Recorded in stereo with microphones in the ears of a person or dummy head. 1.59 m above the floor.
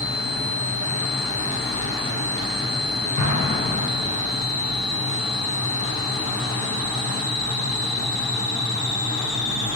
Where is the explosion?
60° right (ahead or behind), 1.4 m.